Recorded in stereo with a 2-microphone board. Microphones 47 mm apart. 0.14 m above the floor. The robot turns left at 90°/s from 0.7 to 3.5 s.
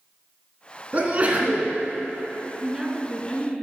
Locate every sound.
0.9 s a sneeze: 70° right, 1.7 m; by 1.7 s 135° right, 1.7 m
2.6 s a woman speaking: 145° right, 1.5 m; by 3.5 s 135° left, 1.5 m